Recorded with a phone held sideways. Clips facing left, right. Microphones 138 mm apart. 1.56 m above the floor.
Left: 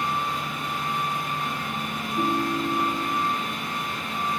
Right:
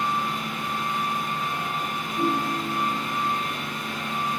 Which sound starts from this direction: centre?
A ringtone, at 2.2 s.